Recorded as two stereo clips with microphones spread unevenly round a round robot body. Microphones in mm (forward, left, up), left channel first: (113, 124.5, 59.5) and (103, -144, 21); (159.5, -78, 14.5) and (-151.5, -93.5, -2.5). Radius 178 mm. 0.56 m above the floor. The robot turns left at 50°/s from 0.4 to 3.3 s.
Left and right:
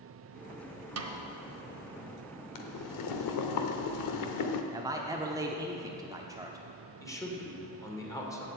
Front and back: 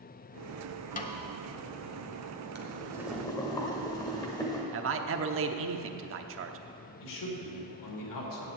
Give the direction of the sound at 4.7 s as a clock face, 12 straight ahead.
5 o'clock.